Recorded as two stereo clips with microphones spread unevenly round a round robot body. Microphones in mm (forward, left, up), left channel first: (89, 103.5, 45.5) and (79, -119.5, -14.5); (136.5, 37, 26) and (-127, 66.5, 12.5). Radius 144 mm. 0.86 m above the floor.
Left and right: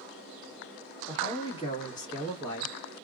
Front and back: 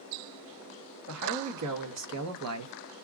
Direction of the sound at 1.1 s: 165° left.